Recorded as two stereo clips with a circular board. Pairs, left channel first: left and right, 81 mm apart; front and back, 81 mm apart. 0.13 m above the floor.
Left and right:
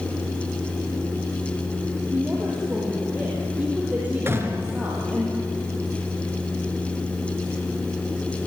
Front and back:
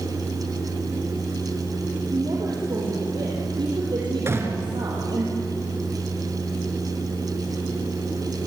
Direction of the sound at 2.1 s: 160° right.